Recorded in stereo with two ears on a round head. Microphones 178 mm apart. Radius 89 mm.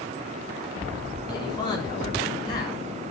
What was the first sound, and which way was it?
A man speaking, 20° left (ahead or behind).